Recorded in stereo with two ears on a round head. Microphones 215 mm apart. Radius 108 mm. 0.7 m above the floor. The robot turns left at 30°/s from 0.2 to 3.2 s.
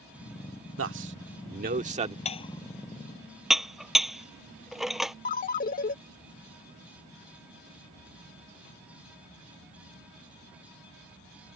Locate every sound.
0.8 s a man speaking: 60° right (ahead or behind); by 2.1 s 25° right (ahead or behind)
2.2 s dishes clattering: 25° left (ahead or behind); by 5.2 s centre (ahead or behind)
5.2 s a ringtone: 35° left (ahead or behind)